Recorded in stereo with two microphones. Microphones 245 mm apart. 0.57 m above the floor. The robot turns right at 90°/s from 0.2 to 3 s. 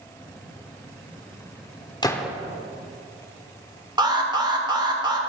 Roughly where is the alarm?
Centre.